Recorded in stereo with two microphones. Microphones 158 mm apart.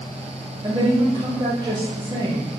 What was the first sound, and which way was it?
A woman speaking, 30° right (ahead or behind).